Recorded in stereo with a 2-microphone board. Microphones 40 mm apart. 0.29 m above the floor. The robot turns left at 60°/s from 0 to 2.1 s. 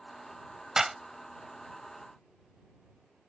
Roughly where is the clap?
Centre.